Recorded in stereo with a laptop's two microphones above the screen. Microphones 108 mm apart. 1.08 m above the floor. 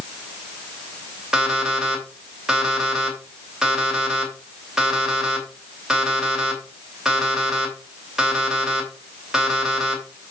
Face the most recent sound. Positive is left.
turn(degrees=-5)  # may be behind; listen again after turning